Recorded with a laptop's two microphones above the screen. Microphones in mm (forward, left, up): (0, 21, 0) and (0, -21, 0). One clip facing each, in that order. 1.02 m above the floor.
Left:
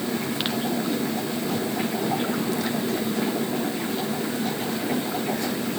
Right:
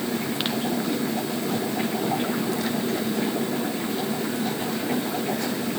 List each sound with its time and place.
Only background noise.